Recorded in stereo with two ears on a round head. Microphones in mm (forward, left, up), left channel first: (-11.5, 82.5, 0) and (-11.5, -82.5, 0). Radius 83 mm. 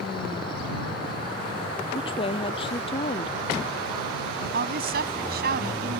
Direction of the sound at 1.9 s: 30° left (ahead or behind).